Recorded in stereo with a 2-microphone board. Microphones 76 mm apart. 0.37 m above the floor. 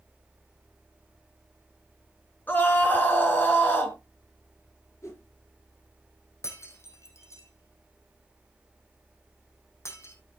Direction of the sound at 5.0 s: 40° left (ahead or behind).